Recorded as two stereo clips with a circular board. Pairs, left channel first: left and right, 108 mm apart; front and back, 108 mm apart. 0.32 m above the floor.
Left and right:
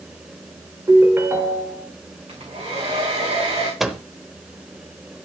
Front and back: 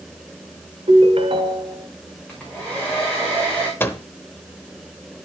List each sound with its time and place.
0.9 s a ringtone: 155° right, 1.9 m
2.3 s a hair dryer: 80° right, 4 m
3.8 s a microwave: 10° right, 0.8 m